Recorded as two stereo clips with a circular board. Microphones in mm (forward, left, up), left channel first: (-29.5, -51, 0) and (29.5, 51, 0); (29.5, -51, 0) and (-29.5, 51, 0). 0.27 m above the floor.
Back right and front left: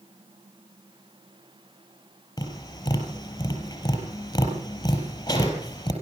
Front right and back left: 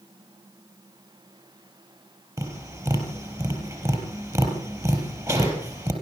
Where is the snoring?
I don't hear snoring.